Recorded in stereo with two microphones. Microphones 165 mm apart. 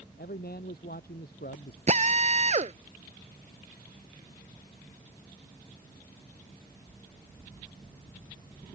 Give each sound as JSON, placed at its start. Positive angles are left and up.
{"t": 0.2, "sound": "a man speaking", "side_deg": 75}
{"t": 1.9, "sound": "a drill", "side_deg": -45}